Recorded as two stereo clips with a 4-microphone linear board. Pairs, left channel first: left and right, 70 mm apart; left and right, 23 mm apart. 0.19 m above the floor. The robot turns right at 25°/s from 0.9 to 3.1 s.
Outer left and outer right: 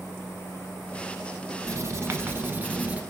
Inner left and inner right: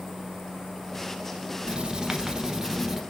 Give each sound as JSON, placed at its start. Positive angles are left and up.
{"t": 1.6, "sound": "writing", "azimuth_deg": -55, "distance_m": 0.6}